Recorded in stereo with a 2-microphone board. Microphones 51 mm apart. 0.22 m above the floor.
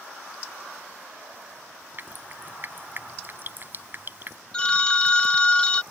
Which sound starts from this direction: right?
Dripping, at 2.0 s.